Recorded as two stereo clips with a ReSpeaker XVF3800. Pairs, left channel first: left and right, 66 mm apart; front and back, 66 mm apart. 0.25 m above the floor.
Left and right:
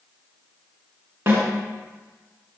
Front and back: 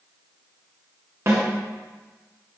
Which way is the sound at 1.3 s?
140° right.